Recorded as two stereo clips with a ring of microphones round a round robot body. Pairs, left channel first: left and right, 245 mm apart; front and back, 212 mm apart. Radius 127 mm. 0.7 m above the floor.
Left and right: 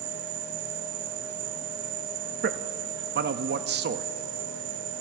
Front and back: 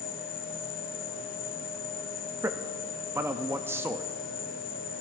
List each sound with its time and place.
0.0 s an insect: 60° right, 0.8 m
2.4 s a man speaking: 105° right, 0.5 m